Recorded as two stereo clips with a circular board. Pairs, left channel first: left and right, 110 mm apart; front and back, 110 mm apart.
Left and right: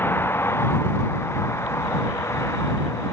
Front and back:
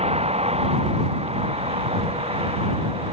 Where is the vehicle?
160° left; by 3.1 s 155° left.